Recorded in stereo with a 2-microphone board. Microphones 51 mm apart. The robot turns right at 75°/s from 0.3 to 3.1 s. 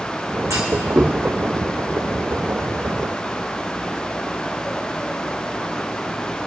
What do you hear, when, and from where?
0.5 s a clunk: 85° right, 1.8 m; by 1.1 s 35° right (ahead or behind), 1.8 m